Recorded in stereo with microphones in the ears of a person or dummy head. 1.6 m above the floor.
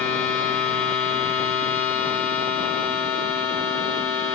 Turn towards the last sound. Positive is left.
turn(degrees=10)  # may be behind; listen again after turning